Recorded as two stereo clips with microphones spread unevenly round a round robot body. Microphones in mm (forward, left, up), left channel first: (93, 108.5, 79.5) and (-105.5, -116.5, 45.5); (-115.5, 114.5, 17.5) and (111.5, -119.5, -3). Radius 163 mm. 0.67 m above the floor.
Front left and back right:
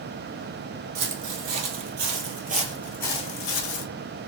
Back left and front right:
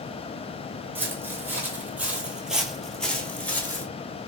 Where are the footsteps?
130° right, 1.3 m; by 3.9 s 55° left, 0.9 m.